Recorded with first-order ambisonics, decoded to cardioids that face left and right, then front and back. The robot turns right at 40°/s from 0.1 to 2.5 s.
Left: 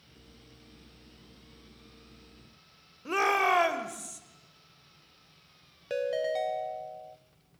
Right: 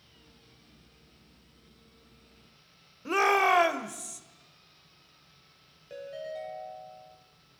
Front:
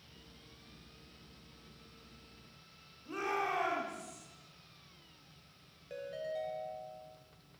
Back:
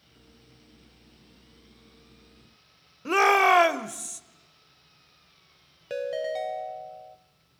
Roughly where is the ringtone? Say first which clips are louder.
Left 9 dB, back 11 dB; behind left.